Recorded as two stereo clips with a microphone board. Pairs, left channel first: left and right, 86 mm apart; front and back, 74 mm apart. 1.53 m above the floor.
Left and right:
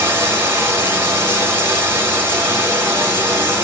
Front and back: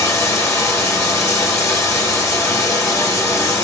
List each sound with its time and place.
0.0 s running water: 40° right, 0.9 m